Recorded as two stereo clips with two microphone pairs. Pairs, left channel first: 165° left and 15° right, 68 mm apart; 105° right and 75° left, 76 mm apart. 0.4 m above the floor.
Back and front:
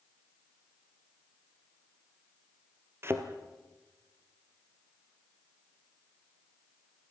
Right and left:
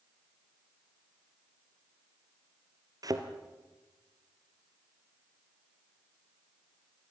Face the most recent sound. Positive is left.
turn(degrees=40)